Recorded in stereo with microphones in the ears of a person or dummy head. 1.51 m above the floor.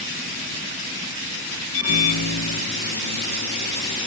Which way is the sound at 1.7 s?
70° left (ahead or behind).